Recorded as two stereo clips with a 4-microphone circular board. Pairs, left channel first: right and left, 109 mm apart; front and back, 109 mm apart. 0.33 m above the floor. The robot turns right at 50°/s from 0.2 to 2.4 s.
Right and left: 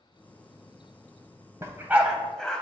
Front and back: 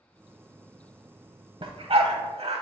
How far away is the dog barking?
About 0.8 m.